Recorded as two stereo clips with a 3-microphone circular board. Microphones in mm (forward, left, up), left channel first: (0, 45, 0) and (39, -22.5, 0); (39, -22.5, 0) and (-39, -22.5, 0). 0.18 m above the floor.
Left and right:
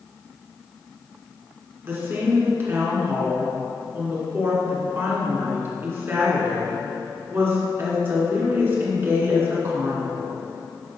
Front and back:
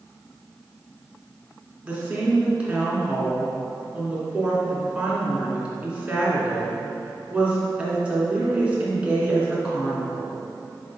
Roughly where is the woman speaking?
Right.